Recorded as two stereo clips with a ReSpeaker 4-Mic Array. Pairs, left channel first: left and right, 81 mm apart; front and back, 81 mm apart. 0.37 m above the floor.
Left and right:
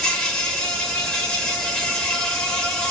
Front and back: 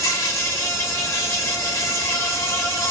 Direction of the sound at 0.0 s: 20° left.